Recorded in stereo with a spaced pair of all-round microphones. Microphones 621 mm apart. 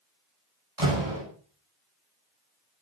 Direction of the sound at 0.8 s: 55° right (ahead or behind).